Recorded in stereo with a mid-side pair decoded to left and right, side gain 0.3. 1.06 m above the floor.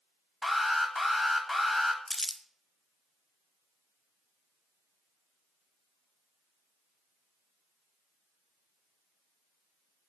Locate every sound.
0.4 s an alarm: 25° left, 1.0 m
2.1 s crumpling: 15° left, 0.5 m